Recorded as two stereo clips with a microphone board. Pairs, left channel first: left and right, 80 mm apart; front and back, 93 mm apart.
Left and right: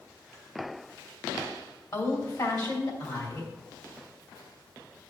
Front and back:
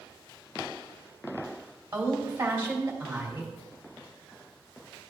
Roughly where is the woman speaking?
Behind left.